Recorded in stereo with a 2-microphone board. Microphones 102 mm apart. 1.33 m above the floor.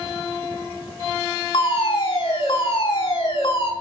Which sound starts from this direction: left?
A fire alarm, at 1.5 s.